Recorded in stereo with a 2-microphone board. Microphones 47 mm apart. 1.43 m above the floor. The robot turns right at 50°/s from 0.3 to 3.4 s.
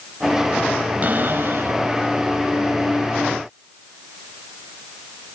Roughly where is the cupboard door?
Behind right.